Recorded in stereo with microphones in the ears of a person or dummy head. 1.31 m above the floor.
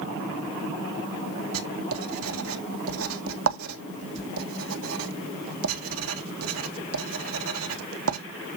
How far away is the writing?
About 1.6 m.